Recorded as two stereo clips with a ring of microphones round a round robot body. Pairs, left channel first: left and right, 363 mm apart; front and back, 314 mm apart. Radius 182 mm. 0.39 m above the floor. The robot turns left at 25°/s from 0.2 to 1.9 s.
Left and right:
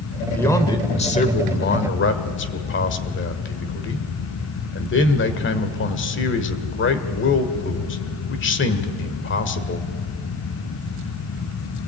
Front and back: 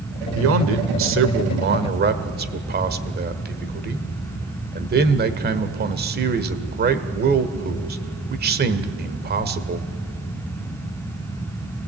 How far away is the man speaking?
About 1.5 m.